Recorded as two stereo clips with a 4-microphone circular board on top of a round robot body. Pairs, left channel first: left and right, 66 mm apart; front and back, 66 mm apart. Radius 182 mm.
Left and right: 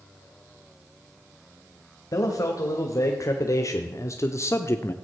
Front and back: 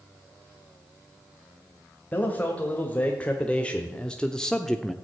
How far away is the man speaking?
About 2 m.